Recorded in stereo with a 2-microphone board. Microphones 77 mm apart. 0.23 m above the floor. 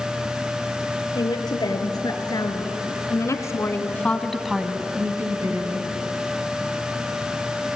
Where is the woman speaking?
65° left (ahead or behind), 4.5 m; by 5.9 s 55° right (ahead or behind), 2 m.